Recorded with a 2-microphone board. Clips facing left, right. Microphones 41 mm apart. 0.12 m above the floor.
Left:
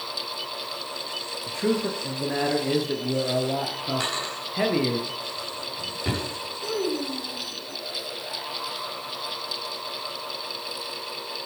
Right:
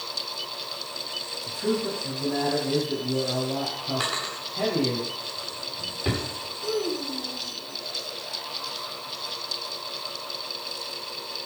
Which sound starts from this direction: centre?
A drawer, at 4.0 s.